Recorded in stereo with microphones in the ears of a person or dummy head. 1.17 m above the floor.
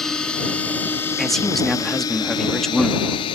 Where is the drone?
5° left (ahead or behind); by 3.4 s 30° left (ahead or behind).